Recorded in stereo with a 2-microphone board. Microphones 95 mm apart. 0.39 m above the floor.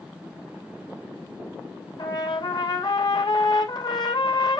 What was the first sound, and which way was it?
A trumpet, 45° left (ahead or behind).